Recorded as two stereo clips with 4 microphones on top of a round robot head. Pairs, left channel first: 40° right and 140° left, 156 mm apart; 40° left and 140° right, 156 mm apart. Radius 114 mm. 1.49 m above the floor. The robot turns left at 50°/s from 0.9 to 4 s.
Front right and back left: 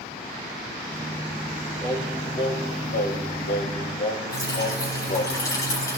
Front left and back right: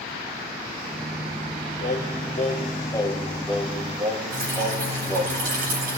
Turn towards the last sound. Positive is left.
turn(degrees=-110)